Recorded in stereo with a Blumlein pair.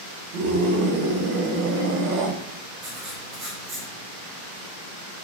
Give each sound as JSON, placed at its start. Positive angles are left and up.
{"t": 0.3, "sound": "a scream", "azimuth_deg": -50, "distance_m": 1.3}
{"t": 2.8, "sound": "writing", "azimuth_deg": -35, "distance_m": 2.5}